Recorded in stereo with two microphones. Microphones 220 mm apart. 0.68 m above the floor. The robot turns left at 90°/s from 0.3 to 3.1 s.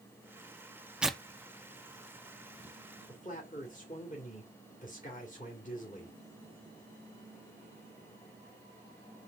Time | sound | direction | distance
1.0 | tearing paper | 5° right (ahead or behind) | 0.8 m
3.1 | a man speaking | 35° left (ahead or behind) | 2 m